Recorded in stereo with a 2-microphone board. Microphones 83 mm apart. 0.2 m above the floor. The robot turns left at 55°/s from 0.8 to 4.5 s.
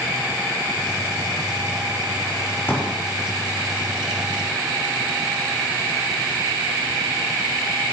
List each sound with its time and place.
2.7 s a pop: 25° left (ahead or behind), 7.5 m; by 3.0 s 10° left (ahead or behind), 7.5 m